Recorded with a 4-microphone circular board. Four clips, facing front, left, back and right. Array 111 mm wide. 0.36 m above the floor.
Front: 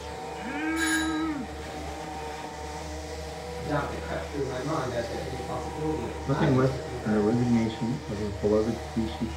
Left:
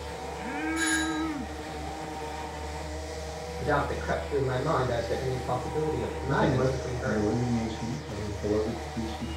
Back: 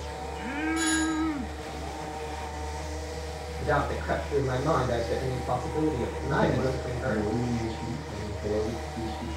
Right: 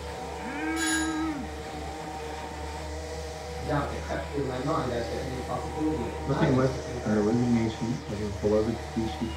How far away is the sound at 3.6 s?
About 5 m.